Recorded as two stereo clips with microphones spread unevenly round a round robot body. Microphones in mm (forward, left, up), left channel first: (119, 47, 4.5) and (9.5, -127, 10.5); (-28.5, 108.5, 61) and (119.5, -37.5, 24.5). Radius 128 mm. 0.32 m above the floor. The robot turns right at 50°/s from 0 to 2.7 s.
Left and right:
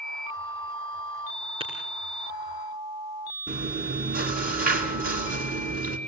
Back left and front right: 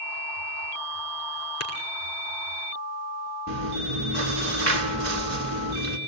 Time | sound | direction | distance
1.6 | tapping | 165° left | 5 m
3.5 | chewing | 80° right | 4 m